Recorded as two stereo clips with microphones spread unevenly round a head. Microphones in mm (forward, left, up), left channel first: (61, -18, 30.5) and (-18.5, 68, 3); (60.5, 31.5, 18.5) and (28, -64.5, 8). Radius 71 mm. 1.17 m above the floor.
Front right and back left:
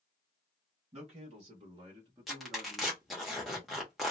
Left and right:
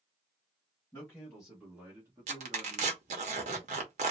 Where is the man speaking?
155° left, 1.4 m; by 3.0 s 150° right, 1.5 m.